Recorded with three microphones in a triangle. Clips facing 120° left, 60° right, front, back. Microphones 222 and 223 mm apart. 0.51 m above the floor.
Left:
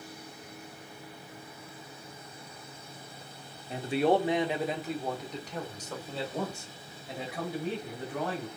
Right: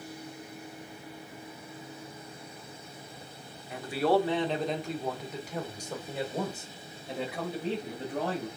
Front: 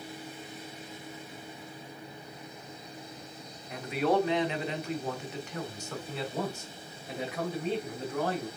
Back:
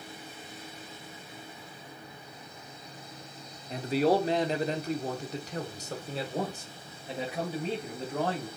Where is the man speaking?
150° left, 1.0 m; by 8.5 s 120° right, 2.5 m.